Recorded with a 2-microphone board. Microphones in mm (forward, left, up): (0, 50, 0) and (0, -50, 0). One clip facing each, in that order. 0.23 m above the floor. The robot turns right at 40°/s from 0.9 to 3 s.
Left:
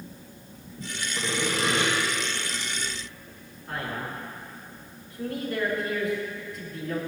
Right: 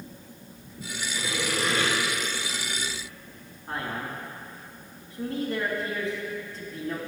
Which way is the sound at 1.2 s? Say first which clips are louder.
Left 2 dB; 130° left.